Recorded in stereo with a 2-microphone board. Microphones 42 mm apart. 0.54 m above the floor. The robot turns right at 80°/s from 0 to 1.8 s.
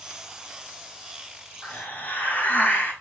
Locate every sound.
1.6 s a hiss: 30° left (ahead or behind), 3 m; by 2.9 s 40° left (ahead or behind), 3 m